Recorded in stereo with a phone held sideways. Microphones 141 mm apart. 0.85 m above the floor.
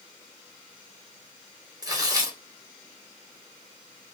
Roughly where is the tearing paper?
Right.